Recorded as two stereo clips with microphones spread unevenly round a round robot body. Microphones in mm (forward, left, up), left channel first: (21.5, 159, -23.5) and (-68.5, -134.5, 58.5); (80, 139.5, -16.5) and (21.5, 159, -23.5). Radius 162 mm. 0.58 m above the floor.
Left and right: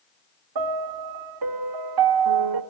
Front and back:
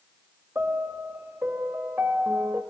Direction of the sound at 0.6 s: 130° right.